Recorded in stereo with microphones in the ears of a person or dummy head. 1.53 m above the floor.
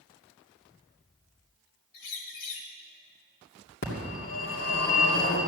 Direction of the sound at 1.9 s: 65° left (ahead or behind).